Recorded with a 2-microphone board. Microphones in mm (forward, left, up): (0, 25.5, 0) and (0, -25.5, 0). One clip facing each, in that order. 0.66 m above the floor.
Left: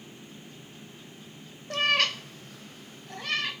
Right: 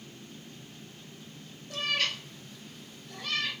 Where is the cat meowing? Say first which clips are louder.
Left 6 dB; 55° left (ahead or behind), 0.6 m; by 3.5 s 40° left (ahead or behind), 1.3 m.